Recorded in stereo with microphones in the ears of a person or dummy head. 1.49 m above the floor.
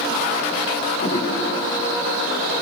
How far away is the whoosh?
About 7 m.